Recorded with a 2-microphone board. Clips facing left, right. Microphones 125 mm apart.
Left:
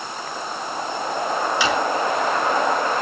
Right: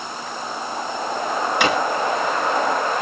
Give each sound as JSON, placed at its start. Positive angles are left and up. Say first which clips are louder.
{"t": 1.6, "sound": "a drawer", "louder": "right 3 dB", "side_deg": -60, "distance_m": 2.0}